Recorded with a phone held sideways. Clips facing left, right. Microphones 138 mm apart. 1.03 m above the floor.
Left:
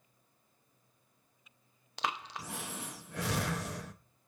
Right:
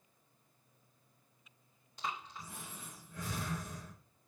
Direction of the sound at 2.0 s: 70° left (ahead or behind).